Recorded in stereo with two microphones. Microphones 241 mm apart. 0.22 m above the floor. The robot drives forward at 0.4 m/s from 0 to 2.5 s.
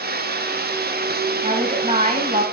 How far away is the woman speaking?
About 1.3 m.